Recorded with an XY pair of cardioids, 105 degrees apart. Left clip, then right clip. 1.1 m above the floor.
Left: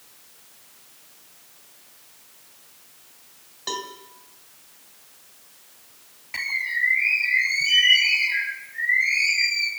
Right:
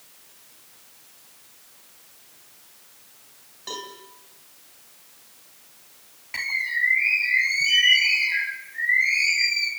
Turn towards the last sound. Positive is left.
turn(degrees=0)